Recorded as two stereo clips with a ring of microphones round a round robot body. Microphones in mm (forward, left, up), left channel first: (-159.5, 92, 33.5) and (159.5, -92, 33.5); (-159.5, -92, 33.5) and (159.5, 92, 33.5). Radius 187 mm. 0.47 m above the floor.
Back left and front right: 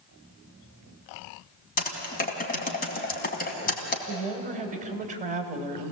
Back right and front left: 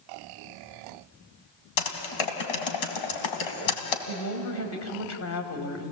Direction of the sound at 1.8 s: 140° right.